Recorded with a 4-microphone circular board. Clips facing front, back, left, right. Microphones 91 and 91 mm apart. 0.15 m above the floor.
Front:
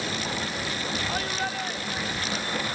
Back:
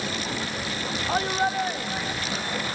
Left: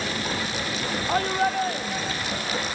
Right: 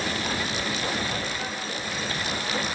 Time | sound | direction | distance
1.1 | a shout | 120° left | ?